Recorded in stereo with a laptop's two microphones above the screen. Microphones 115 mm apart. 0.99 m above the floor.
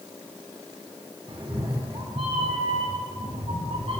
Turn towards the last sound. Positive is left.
turn(degrees=-60)  # may be behind; listen again after turning